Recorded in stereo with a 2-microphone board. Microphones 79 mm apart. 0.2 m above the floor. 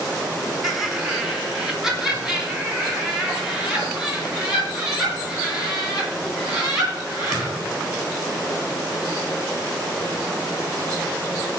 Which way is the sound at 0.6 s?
Centre (ahead or behind).